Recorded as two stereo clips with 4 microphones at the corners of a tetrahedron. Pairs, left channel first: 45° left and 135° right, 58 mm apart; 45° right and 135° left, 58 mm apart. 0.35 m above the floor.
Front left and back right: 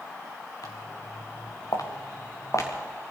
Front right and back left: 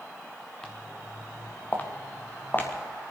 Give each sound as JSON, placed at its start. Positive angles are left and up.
{"t": 0.6, "sound": "footsteps", "azimuth_deg": 35, "distance_m": 1.8}